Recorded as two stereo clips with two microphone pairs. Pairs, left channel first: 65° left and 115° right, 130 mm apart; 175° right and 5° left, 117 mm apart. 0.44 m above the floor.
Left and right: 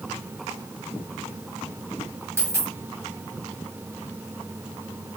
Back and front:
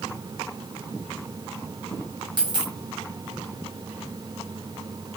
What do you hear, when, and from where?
2.4 s a dropped coin: 45° right, 1.2 m